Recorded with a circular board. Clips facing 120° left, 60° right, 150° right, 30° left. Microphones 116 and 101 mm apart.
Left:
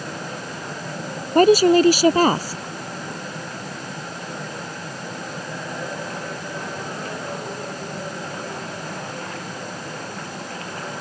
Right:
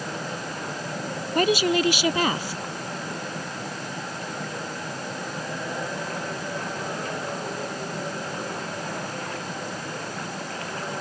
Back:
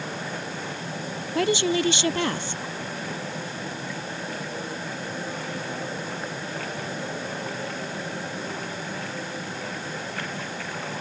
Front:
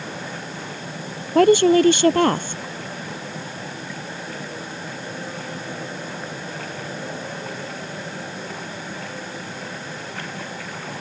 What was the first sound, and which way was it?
A woman speaking, 70° left.